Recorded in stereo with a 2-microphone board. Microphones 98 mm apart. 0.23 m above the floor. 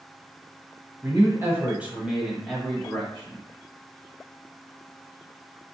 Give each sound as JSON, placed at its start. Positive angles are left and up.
{"t": 1.0, "sound": "a man speaking", "side_deg": -35, "distance_m": 1.2}